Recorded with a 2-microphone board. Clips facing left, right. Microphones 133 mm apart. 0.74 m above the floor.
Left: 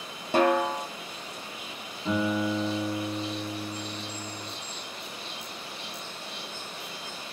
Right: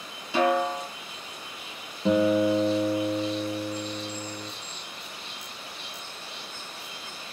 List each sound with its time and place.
0.3 s a snare drum: 45° left (ahead or behind), 0.6 m
2.0 s a guitar: 70° right (ahead or behind), 0.9 m